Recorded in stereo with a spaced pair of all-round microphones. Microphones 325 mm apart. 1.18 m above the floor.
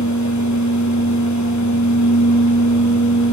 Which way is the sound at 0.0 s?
60° left (ahead or behind).